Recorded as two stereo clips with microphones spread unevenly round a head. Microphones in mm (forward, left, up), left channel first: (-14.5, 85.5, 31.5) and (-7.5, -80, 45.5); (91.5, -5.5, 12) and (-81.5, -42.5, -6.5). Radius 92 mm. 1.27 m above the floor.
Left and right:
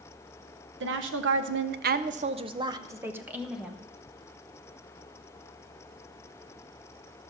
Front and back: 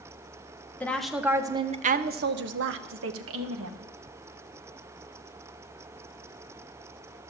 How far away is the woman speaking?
About 0.9 m.